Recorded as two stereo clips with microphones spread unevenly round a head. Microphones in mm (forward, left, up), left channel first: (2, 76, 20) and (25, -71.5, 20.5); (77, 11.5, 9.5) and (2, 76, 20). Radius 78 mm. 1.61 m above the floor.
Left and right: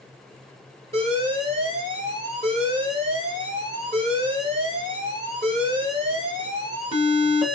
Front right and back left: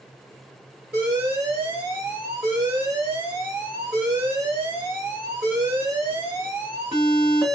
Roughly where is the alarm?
Behind right.